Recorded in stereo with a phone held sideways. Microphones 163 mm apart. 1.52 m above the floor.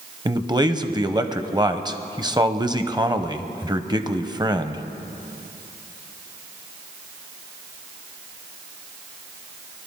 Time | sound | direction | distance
0.2 | a man speaking | 25° right (ahead or behind) | 0.7 m